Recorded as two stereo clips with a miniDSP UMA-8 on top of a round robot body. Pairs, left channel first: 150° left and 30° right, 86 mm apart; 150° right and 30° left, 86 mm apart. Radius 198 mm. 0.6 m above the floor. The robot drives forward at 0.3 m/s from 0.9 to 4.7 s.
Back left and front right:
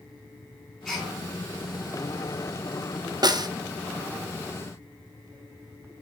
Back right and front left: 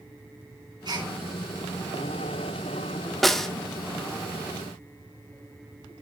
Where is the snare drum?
60° right, 1.4 m; by 3.5 s 65° right, 1.4 m.